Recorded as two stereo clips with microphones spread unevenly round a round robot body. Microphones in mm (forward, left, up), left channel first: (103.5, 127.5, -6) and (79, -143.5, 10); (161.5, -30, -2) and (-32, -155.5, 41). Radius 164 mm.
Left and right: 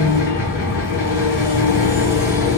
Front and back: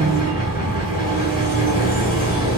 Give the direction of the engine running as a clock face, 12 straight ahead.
8 o'clock.